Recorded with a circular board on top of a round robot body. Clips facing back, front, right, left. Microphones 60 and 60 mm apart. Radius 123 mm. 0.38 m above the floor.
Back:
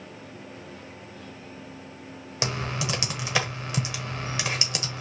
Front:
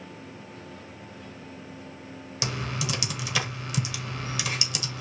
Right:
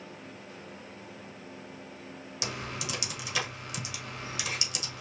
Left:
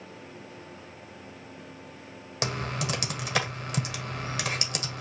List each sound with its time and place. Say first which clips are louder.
2.4 s typing on a keyboard: back 2 dB, left 6 dB; 125° left, 1.4 m